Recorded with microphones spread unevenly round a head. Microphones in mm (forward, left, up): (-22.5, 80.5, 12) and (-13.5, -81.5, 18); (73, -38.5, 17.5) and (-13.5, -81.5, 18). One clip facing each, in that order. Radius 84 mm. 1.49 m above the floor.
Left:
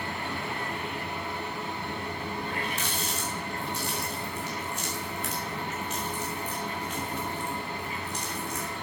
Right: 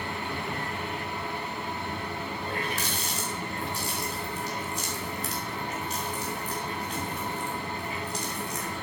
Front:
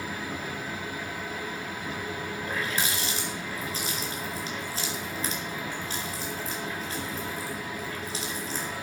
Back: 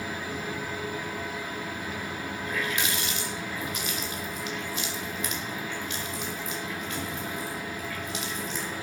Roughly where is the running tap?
Ahead right.